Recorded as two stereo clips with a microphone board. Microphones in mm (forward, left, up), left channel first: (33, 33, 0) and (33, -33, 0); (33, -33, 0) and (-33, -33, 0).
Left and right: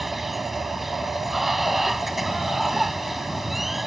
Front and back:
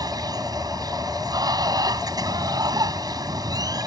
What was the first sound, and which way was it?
Running water, 175° right.